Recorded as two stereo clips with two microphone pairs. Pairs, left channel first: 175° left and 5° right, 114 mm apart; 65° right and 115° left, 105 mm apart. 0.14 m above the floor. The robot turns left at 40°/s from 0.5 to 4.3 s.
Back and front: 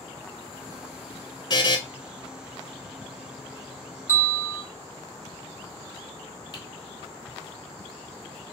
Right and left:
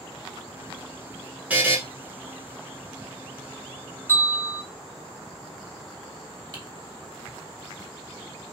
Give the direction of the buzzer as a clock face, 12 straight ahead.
6 o'clock.